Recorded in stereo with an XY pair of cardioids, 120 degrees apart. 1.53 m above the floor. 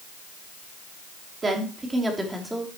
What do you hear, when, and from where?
1.4 s a woman speaking: 25° right, 3 m; by 2.7 s straight ahead, 3 m